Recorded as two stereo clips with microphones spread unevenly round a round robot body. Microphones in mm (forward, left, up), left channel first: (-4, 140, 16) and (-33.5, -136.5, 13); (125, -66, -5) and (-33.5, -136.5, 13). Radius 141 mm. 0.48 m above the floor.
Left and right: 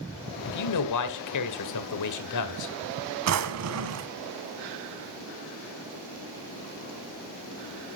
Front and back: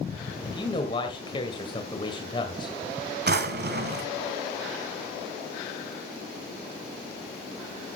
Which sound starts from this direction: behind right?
A drawer, at 3.3 s.